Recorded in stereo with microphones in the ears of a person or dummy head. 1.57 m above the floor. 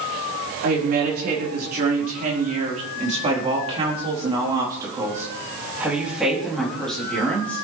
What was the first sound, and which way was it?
A woman speaking, 55° right (ahead or behind).